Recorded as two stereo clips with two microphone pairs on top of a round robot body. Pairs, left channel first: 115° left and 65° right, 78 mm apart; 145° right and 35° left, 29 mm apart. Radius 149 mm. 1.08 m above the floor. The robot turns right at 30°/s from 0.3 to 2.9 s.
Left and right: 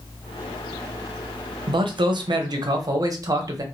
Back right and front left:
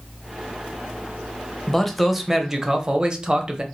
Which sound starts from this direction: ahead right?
A man speaking, at 1.7 s.